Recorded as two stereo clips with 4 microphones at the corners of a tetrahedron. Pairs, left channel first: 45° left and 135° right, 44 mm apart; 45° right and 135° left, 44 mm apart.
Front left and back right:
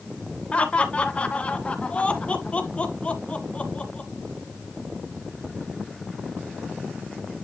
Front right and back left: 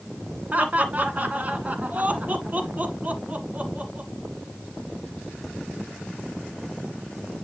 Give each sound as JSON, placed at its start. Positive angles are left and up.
{"t": 0.5, "sound": "laughter", "azimuth_deg": 100, "distance_m": 1.8}